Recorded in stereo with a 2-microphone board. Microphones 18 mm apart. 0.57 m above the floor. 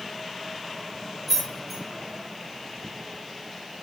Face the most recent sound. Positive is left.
turn(degrees=10)  # may be behind; listen again after turning